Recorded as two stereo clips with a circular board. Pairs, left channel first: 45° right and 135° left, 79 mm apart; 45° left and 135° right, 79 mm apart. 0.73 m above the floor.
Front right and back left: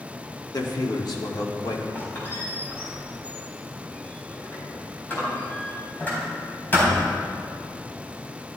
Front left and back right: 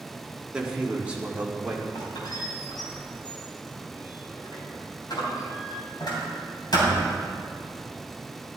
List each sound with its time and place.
0.5 s a man speaking: 60° right, 1.7 m; by 1.9 s 65° right, 2.5 m
1.9 s a squeak: 20° left, 4 m